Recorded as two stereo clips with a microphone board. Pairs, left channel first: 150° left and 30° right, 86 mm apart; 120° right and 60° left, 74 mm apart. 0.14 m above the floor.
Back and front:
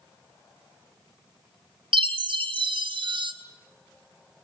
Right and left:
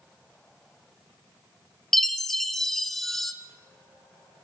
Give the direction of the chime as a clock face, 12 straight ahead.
1 o'clock.